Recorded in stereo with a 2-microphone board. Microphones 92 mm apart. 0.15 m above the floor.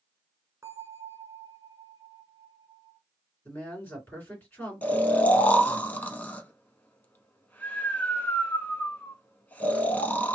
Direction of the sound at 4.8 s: 20° left (ahead or behind).